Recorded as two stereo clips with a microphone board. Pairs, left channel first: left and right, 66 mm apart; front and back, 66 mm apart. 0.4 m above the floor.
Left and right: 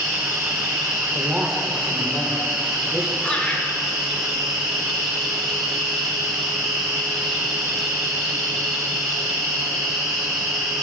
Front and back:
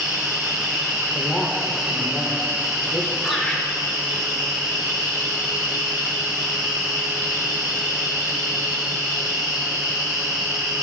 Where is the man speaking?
15° right, 1.3 m.